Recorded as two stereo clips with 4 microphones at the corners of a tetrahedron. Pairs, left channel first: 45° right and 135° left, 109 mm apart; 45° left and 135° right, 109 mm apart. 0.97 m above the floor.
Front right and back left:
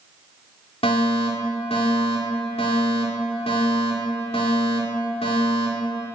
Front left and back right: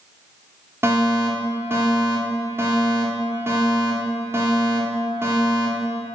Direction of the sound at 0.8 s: 70° right.